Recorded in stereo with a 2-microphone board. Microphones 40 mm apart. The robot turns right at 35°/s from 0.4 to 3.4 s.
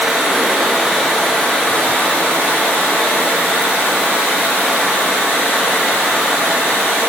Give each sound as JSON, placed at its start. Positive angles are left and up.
{"t": 0.0, "sound": "running water", "azimuth_deg": -15, "distance_m": 0.7}